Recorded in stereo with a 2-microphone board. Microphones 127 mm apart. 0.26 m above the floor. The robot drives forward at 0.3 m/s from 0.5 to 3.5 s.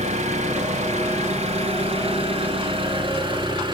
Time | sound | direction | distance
0.0 | an engine running | 65° right (ahead or behind) | 0.9 m